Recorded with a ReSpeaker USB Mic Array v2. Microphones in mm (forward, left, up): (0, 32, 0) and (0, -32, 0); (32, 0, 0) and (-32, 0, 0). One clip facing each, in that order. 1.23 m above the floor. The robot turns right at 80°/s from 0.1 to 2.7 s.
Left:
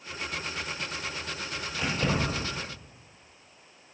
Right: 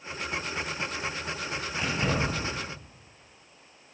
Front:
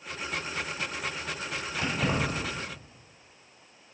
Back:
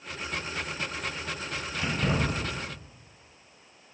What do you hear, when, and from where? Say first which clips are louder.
1.8 s keys jangling: even, even; 35° right, 1.6 m; by 2.5 s 20° left, 1.6 m